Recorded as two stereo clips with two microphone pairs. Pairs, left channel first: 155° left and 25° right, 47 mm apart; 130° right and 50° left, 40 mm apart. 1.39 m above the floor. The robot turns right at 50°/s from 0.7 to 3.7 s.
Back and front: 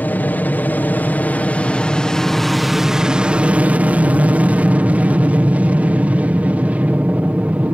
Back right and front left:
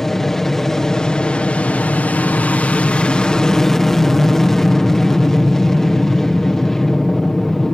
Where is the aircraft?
150° left; by 7.7 s 60° right.